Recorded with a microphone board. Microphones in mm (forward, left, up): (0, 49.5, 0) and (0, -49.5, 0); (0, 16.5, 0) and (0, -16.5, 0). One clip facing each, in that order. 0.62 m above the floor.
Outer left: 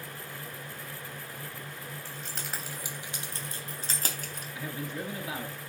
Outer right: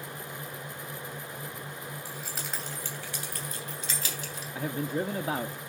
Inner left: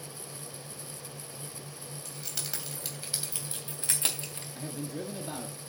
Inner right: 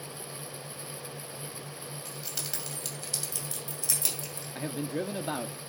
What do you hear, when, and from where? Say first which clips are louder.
2.0 s keys jangling: outer right 1 dB, inner left 1 dB; 10° right (ahead or behind), 3 m; by 4.5 s 50° left (ahead or behind), 4 m
4.5 s a man speaking: outer right 7 dB, inner right 5 dB; 40° right (ahead or behind), 0.8 m